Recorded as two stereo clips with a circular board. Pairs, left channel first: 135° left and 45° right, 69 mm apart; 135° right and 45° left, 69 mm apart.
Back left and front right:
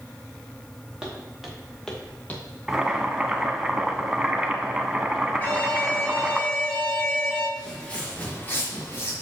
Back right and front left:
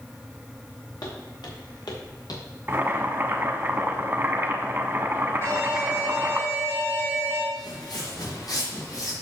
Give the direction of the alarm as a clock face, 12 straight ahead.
6 o'clock.